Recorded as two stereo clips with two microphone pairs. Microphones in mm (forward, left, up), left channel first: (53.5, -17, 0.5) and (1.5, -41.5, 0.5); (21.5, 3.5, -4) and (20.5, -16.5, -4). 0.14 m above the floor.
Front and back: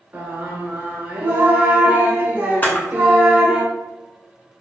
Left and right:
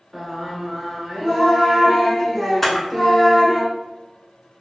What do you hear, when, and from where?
0.1 s singing: 165° left, 0.8 m
2.6 s a camera shutter: 20° left, 0.6 m